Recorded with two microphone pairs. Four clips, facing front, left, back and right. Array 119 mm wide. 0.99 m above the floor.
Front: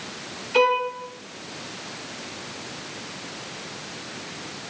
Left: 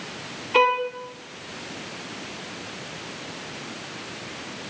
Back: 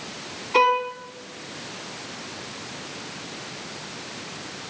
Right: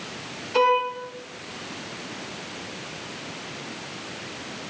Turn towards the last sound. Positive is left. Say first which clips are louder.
# even, back 1 dB
turn(degrees=155)